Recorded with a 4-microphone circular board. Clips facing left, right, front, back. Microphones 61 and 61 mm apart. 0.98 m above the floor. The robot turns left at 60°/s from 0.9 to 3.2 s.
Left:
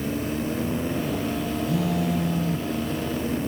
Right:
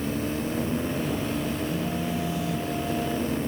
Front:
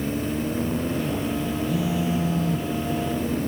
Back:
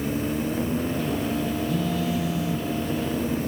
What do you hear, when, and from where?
1.7 s a phone buzzing: 90° left; by 2.7 s 30° left